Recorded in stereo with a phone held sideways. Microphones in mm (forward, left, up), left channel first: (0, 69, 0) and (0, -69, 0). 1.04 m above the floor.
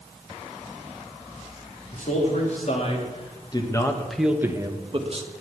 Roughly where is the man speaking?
Left.